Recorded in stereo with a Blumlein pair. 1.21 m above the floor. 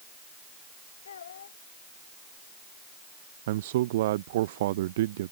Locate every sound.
1.1 s a child speaking: 65° left
3.5 s a man speaking: 55° right